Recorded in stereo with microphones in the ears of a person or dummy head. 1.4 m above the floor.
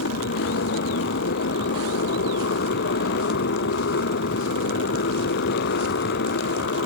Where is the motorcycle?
60° left (ahead or behind).